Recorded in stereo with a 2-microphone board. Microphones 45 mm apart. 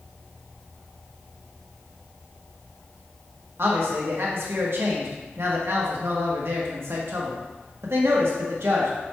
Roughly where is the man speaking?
Right.